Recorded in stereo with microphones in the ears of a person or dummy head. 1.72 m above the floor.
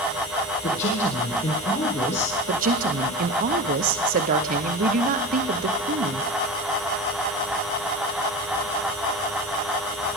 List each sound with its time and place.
0.6 s a woman speaking: 40° left (ahead or behind), 1.8 m
2.5 s a woman speaking: 45° right (ahead or behind), 0.9 m